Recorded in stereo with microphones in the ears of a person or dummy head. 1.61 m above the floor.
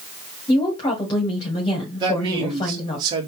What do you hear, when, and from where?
0.5 s a woman speaking: 25° left (ahead or behind), 1.8 m
2.0 s a man speaking: 30° right (ahead or behind), 2 m